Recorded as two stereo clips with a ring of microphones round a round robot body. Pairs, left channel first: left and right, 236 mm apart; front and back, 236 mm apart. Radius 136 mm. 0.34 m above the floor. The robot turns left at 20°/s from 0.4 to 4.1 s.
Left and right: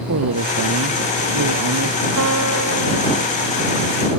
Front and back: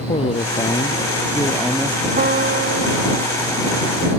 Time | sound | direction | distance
0.1 | a man speaking | 65° right | ?
2.2 | a piano | 125° right | ?